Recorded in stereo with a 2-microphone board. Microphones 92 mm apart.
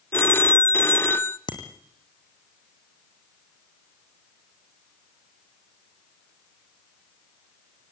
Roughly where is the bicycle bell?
Left.